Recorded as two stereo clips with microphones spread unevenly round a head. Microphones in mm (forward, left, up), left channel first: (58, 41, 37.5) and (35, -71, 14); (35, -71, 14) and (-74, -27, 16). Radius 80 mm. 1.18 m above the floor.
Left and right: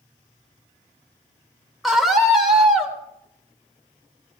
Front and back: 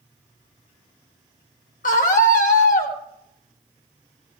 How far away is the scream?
About 4.5 m.